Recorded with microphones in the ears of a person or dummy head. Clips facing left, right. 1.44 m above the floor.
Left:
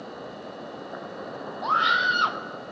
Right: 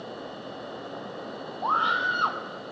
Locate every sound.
1.6 s a scream: 30° left (ahead or behind), 0.7 m